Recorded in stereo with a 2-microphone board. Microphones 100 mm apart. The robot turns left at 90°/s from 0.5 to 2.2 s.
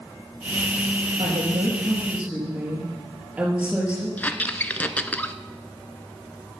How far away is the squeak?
About 0.5 m.